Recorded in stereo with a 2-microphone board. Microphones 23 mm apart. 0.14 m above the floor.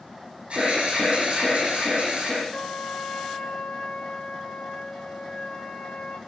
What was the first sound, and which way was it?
An alarm, 55° right (ahead or behind).